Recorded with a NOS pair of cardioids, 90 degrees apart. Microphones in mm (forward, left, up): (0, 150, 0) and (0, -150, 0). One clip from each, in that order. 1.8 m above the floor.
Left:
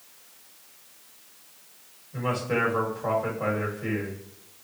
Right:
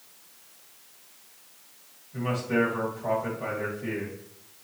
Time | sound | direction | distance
2.1 | a man speaking | 35° left | 2.5 m